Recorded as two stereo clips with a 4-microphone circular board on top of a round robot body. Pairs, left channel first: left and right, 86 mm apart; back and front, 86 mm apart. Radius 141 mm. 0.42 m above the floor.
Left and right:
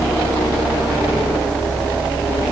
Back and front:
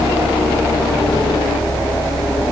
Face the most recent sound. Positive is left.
No sound to turn to.